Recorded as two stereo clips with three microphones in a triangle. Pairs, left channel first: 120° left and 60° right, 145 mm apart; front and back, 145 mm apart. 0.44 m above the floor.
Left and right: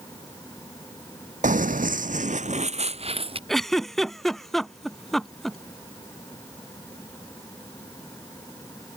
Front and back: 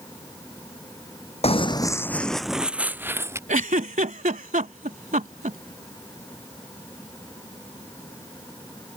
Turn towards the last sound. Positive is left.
turn(degrees=-150)